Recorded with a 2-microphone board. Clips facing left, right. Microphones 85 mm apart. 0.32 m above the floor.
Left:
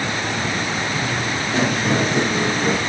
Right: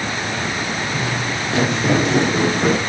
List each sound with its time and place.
0.9 s footsteps: 75° right (ahead or behind), 6 m; by 2.8 s 80° right, 5 m